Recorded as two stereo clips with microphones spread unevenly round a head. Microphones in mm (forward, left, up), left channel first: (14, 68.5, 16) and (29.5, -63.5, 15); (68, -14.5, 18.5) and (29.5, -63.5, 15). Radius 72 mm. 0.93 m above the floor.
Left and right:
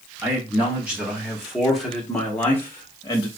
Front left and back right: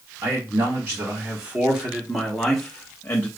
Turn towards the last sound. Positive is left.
turn(degrees=65)